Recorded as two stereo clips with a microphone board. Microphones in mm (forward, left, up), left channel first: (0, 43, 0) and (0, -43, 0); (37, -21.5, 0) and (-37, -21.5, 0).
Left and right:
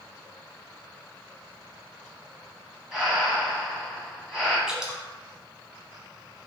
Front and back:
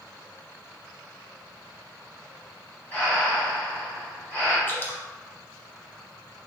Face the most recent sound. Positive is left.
turn(degrees=-15)